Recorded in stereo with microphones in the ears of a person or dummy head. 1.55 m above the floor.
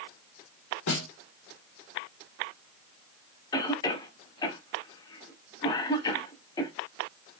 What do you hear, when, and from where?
0.9 s a snare drum: 75° left (ahead or behind), 1.1 m
3.5 s a cough: 25° left (ahead or behind), 0.9 m